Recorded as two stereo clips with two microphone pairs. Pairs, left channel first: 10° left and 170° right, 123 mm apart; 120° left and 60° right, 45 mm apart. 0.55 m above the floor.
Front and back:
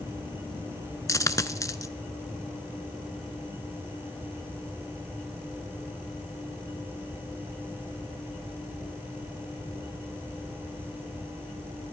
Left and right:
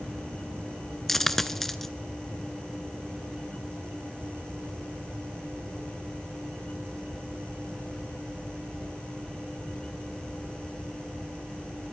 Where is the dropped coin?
35° left, 0.5 m.